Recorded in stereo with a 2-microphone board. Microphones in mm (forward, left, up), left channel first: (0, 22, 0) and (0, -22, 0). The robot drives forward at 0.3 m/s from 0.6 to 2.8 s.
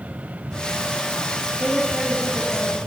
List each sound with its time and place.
1.6 s a woman speaking: 20° left (ahead or behind), 1.9 m; by 2.8 s 15° left (ahead or behind), 2 m